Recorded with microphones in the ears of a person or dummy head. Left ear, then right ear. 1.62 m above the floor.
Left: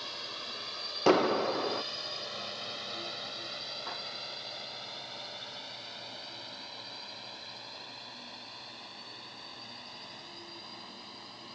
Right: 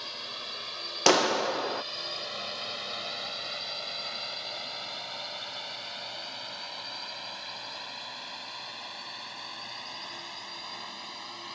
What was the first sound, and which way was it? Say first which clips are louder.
A drone: right 2 dB; 10° right (ahead or behind).